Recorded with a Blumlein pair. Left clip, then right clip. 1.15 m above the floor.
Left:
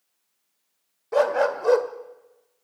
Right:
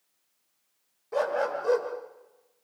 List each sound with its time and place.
1.1 s a dog barking: 70° left, 1.8 m